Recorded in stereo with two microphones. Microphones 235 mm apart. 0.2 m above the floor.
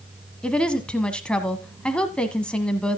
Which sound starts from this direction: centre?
A woman speaking, at 0.4 s.